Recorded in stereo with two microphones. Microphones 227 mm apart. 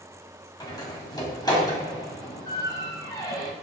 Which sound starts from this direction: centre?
A door slam, at 0.6 s.